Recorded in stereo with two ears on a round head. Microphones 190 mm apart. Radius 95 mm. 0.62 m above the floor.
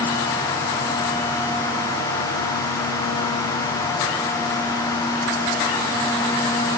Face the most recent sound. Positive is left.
No sound to turn to.